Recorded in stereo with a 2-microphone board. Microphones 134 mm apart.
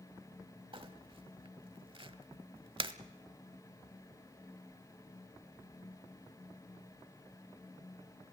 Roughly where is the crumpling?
Right.